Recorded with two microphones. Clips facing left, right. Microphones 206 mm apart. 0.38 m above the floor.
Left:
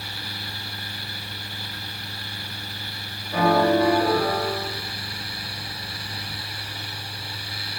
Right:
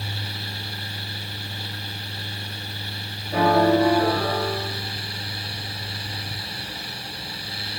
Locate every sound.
3.3 s a piano: 40° right (ahead or behind), 1.0 m